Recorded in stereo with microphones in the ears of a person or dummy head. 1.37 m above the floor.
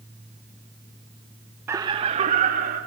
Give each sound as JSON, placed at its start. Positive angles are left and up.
{"t": 1.7, "sound": "laughter", "side_deg": -15, "distance_m": 0.9}